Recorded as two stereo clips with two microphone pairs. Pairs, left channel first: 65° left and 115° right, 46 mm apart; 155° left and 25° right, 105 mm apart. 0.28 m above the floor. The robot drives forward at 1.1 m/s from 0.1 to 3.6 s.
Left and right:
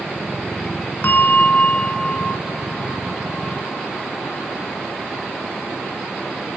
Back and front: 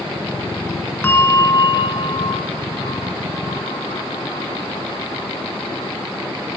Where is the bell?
90° left, 1.3 m; by 6.0 s 155° left, 3 m.